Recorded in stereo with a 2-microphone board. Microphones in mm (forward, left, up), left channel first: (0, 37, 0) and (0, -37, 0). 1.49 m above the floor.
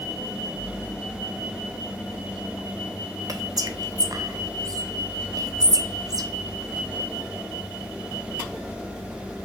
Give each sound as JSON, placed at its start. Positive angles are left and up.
{"t": 3.3, "sound": "whispering", "side_deg": -55, "distance_m": 0.5}